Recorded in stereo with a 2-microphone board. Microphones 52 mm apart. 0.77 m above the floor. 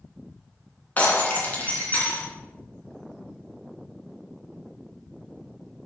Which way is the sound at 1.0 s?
30° left (ahead or behind).